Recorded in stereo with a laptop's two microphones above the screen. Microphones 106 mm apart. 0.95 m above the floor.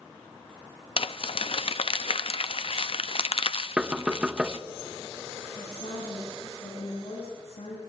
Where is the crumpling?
65° left (ahead or behind), 0.6 m.